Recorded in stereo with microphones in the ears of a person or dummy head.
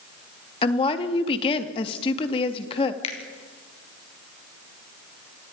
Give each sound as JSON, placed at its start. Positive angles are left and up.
{"t": 0.6, "sound": "a woman speaking", "side_deg": 30, "distance_m": 1.9}
{"t": 3.0, "sound": "a finger snap", "side_deg": 35, "distance_m": 3.0}